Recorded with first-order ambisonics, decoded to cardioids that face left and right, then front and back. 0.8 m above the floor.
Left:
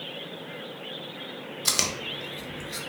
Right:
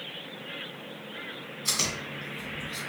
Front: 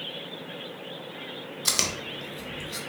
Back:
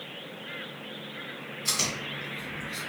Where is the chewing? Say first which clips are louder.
Left 3 dB, front 2 dB; 45° left, 0.9 m.